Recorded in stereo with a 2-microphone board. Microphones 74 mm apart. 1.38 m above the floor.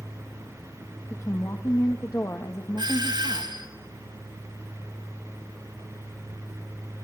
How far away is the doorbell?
About 5 m.